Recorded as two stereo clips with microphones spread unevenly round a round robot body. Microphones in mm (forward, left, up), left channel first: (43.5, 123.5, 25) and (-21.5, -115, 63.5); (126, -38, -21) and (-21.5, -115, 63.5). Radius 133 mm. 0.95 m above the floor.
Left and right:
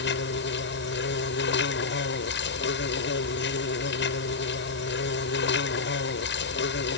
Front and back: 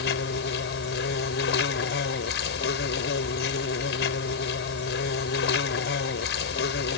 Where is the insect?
30° left.